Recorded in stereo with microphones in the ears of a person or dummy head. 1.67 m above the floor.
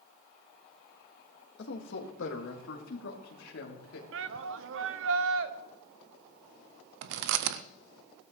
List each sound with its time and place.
1.6 s a man speaking: 65° left (ahead or behind), 1.8 m; by 4.0 s 85° left, 3 m
4.1 s a shout: 70° right (ahead or behind), 0.9 m
7.0 s chewing: 65° right (ahead or behind), 0.5 m